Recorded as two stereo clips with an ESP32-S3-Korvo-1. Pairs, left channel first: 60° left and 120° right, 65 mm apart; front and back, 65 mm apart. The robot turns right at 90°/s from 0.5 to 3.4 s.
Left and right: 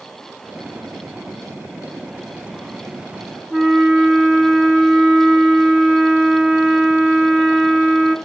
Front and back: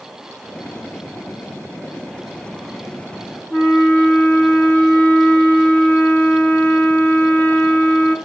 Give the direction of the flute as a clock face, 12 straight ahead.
11 o'clock.